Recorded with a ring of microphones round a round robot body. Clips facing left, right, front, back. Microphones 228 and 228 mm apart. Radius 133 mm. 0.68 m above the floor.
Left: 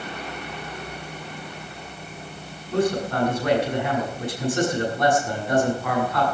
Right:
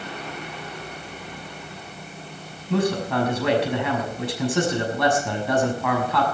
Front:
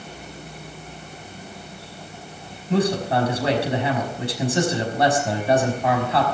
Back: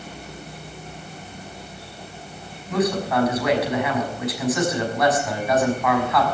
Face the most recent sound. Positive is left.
turn(degrees=-60)